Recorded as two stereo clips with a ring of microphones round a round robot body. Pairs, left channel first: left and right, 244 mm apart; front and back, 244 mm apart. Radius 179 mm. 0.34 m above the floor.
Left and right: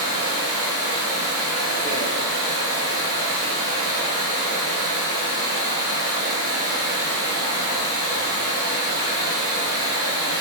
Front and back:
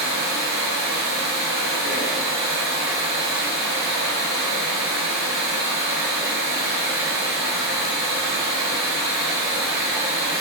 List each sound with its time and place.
0.0 s running water: 150° right, 1.5 m